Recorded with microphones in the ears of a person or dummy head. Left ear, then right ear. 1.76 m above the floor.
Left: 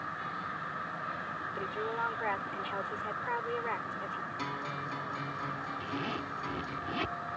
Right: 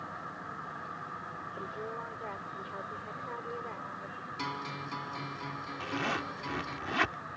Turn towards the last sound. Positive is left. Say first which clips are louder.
# right 3 dB
turn(degrees=-55)  # may be behind; listen again after turning